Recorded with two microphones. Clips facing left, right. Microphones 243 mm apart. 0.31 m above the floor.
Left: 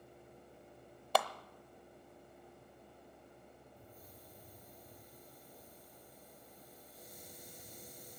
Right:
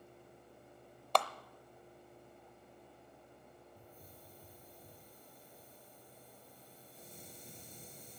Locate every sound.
1.1 s a clap: 5° left (ahead or behind), 0.7 m
3.8 s a hiss: 30° right (ahead or behind), 3 m